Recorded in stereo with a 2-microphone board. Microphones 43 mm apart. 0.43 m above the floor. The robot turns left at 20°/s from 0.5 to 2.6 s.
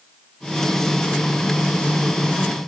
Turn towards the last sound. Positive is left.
No sound to turn to.